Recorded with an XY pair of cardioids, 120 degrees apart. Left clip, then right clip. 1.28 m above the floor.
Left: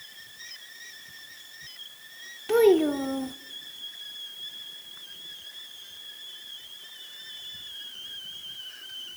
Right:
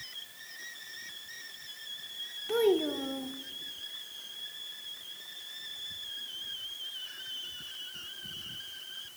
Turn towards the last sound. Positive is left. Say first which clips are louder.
# left 8 dB
turn(degrees=40)